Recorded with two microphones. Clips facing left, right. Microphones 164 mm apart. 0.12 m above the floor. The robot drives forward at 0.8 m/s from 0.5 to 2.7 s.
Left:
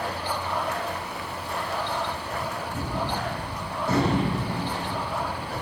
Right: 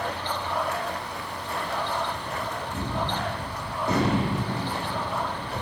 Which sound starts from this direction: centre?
A gunshot, at 2.7 s.